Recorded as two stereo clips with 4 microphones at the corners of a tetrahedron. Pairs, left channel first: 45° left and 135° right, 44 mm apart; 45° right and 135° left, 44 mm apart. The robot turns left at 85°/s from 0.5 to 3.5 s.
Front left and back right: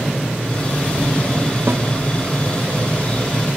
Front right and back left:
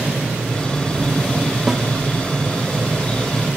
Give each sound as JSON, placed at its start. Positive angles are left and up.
{"t": 1.7, "sound": "a snare drum", "azimuth_deg": -145, "distance_m": 0.6}